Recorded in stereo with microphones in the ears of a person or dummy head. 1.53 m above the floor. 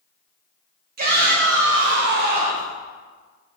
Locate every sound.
1.0 s a shout: 50° right (ahead or behind), 0.8 m; by 2.7 s 40° right (ahead or behind), 0.7 m